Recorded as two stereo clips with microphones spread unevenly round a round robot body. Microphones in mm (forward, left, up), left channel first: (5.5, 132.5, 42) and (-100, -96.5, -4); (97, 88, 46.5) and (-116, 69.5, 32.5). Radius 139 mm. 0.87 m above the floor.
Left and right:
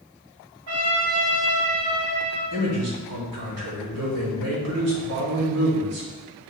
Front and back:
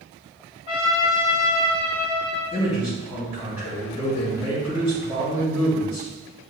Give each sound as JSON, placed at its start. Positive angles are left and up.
{"t": 0.7, "sound": "a trumpet", "azimuth_deg": -110, "distance_m": 2.0}
{"t": 2.5, "sound": "a man speaking", "azimuth_deg": -90, "distance_m": 1.6}